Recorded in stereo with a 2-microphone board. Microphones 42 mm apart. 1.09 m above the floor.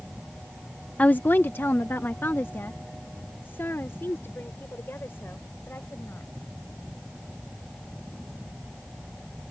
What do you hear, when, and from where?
1.0 s a woman speaking: 30° left (ahead or behind); by 6.3 s 65° left (ahead or behind)